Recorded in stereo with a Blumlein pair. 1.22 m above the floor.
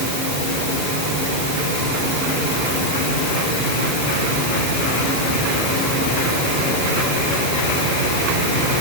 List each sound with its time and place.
Only background noise.